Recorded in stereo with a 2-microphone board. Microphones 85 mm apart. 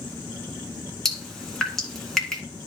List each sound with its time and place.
1.1 s dripping: 5° left (ahead or behind), 1.6 m